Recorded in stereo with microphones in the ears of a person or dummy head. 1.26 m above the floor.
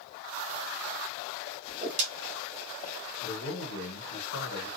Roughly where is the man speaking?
Left.